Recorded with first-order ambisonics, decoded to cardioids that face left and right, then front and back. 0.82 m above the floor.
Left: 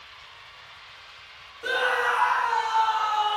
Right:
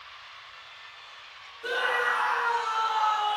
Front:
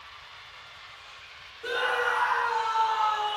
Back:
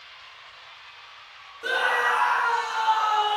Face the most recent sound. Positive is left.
turn(degrees=155)